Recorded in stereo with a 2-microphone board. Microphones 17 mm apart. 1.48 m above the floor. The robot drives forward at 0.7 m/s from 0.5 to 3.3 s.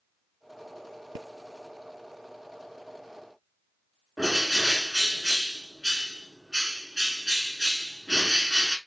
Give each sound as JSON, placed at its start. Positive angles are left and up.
{"t": 4.2, "sound": "a bird", "side_deg": -20, "distance_m": 1.2}